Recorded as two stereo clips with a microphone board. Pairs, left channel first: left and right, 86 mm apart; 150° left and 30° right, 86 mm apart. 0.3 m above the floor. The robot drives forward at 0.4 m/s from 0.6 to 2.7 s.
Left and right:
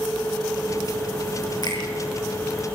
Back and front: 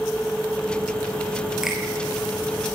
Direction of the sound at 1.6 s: 55° left.